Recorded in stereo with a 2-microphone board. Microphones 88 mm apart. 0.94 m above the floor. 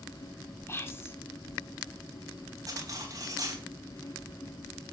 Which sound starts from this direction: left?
Whispering, at 0.7 s.